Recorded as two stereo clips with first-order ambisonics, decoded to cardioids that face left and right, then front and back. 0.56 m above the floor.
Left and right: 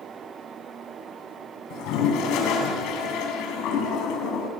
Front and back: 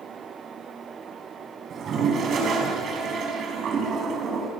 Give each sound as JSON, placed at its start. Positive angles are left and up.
{"t": 1.7, "sound": "a toilet flushing", "azimuth_deg": 120, "distance_m": 5.0}